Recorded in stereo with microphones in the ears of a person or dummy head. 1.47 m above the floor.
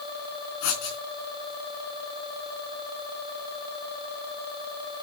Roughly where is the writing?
Left.